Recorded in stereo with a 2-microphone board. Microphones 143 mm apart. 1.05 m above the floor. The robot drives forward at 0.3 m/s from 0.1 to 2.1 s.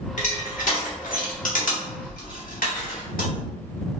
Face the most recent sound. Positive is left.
turn(degrees=80)